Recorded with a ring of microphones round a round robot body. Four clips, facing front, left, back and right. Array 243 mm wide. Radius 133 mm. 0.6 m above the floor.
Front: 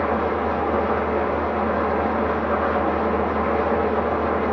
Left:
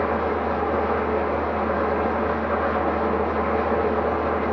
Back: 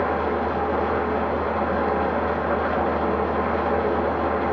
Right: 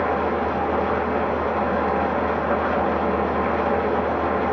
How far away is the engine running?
About 3.5 m.